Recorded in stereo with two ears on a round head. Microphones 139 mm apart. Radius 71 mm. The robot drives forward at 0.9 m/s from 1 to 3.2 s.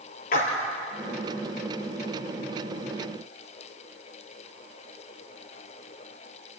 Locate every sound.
0.3 s a splash: 65° left (ahead or behind), 4.5 m